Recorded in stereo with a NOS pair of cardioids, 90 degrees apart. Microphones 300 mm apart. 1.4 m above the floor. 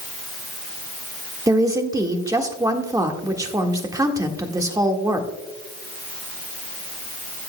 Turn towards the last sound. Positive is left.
turn(degrees=-10)